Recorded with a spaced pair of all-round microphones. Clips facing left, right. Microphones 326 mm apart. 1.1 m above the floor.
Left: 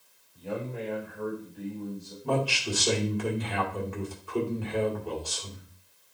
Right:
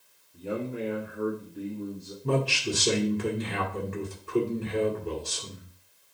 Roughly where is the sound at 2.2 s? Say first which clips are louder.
Right 2 dB; right.